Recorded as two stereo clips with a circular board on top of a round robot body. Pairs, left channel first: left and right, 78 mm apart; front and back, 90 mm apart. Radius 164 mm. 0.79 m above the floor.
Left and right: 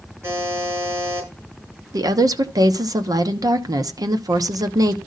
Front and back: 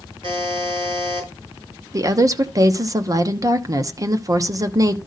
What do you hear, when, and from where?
0.2 s a buzzer: 145° right, 6.5 m
1.9 s a woman speaking: 130° right, 1.2 m